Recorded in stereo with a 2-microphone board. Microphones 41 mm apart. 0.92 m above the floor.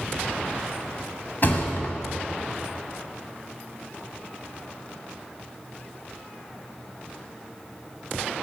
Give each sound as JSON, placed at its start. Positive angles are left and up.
{"t": 1.4, "sound": "a thud", "side_deg": 50, "distance_m": 1.3}